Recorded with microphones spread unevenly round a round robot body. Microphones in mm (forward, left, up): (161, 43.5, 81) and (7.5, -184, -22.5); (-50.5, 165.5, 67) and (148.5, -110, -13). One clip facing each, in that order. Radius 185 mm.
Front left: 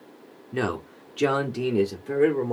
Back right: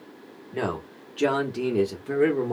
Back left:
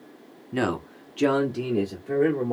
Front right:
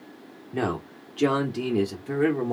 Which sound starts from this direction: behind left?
A man speaking, at 0.5 s.